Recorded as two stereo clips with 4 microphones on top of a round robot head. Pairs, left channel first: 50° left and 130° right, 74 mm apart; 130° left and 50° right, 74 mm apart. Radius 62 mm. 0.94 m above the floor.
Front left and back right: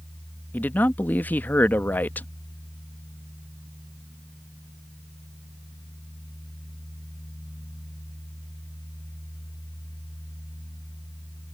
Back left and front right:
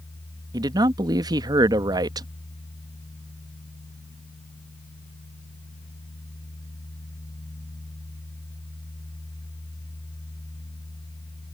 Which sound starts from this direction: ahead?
A man speaking, at 0.5 s.